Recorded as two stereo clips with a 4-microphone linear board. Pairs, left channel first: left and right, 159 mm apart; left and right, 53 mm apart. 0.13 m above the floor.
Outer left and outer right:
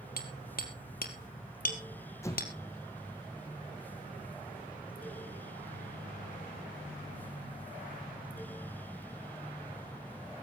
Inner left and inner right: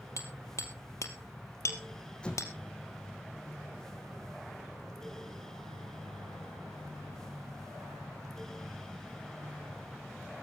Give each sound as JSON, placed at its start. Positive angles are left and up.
{"t": 0.2, "sound": "hammering", "side_deg": 70, "distance_m": 2.5}
{"t": 2.2, "sound": "an explosion", "side_deg": 20, "distance_m": 3.5}